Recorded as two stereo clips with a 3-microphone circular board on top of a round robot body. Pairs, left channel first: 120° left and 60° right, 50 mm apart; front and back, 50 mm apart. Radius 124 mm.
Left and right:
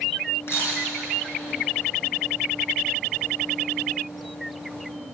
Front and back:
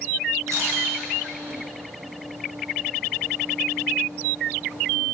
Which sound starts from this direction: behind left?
A camera shutter, at 0.5 s.